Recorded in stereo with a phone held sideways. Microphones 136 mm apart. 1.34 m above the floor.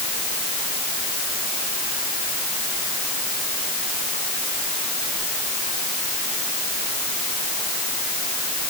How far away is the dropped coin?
I don't hear a dropped coin.